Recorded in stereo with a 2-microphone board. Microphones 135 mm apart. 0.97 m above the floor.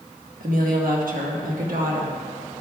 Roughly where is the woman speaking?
Right.